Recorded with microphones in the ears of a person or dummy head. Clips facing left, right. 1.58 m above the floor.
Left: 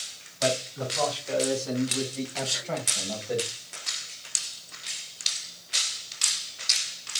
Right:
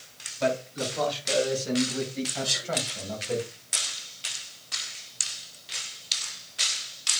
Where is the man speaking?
35° right (ahead or behind), 5.5 m; by 3.4 s 5° right (ahead or behind), 4.5 m.